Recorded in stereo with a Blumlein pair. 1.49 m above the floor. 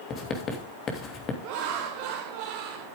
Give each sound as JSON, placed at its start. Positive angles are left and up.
{"t": 0.1, "sound": "writing", "azimuth_deg": 30, "distance_m": 3.0}
{"t": 1.4, "sound": "laughter", "azimuth_deg": -45, "distance_m": 1.9}